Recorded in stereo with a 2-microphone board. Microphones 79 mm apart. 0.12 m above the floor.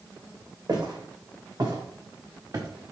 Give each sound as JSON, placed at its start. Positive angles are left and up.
{"t": 0.7, "sound": "footsteps", "side_deg": -70, "distance_m": 2.0}